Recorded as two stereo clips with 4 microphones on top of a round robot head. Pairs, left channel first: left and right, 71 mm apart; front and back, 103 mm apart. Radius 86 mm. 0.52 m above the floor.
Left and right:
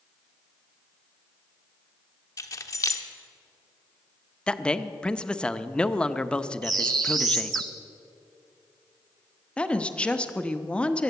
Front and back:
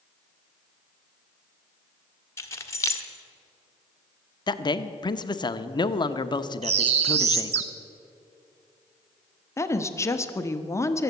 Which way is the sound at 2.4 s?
60° left.